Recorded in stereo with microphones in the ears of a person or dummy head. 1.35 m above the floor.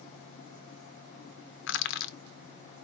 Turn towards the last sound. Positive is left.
turn(degrees=60)  # may be behind; listen again after turning